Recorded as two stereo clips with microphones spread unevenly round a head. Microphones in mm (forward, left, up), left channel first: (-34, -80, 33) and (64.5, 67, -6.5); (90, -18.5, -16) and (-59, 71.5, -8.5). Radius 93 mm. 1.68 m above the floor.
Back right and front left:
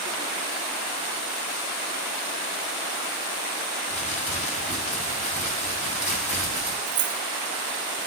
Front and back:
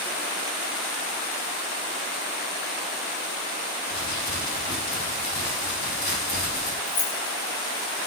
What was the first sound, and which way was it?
Crumpling, 70° right.